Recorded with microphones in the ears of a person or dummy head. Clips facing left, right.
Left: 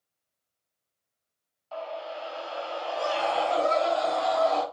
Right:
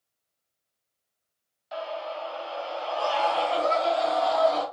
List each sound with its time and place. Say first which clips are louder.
1.7 s a scream: right 2 dB; 20° right (ahead or behind), 0.5 m; by 4.6 s 75° left (ahead or behind), 1.7 m